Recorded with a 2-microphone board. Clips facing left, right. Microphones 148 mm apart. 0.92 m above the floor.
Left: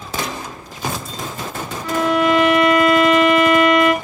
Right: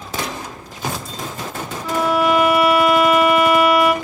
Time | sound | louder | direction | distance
1.8 | a violin | left 1 dB | 5° right (ahead or behind) | 0.9 m